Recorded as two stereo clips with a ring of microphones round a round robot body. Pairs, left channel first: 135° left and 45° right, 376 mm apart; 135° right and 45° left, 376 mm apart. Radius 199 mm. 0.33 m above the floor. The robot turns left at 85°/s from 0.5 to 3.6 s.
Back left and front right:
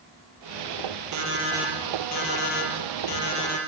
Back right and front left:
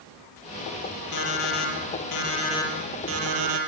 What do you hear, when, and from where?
1.1 s an alarm clock: 90° right, 7 m; by 3.6 s 60° left, 7 m